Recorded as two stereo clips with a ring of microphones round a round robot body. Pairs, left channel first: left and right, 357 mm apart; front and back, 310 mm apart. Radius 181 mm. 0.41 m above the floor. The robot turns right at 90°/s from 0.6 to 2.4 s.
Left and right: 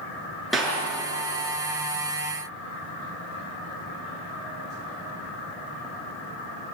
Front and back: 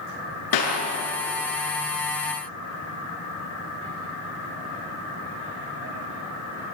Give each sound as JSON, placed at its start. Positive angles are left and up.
{"t": 0.5, "sound": "a clap", "azimuth_deg": 0, "distance_m": 6.5}